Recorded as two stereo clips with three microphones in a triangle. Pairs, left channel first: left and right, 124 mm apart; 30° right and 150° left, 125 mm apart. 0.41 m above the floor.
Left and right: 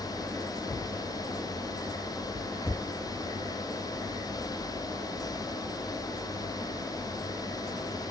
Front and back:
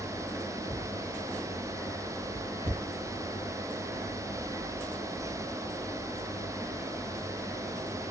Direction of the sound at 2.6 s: 155° left.